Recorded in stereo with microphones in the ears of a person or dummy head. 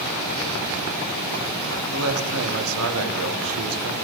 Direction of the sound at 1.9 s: 80° right.